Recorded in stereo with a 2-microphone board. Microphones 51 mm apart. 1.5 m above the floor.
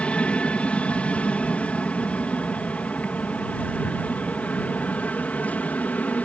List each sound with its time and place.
0.0 s an aircraft: 20° left (ahead or behind); by 6.3 s 30° left (ahead or behind)